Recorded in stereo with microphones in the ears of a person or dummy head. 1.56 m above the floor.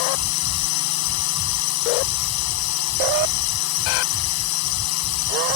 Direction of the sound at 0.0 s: 80° left.